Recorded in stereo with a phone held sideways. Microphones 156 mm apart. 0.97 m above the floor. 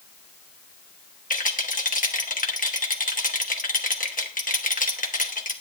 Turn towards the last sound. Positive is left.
turn(degrees=60)  # may be behind; listen again after turning